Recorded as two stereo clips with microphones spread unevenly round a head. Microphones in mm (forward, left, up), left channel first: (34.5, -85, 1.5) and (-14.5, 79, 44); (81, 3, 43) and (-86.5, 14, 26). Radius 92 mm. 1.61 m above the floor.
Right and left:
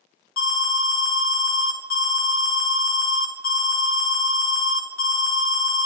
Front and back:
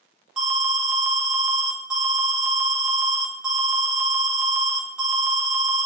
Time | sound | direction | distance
0.4 | an alarm | 95° right | 1.1 m